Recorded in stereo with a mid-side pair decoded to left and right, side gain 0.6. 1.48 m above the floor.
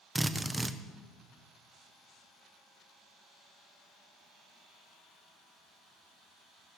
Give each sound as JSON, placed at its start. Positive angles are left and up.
{"t": 0.1, "sound": "a drill", "azimuth_deg": -10, "distance_m": 1.1}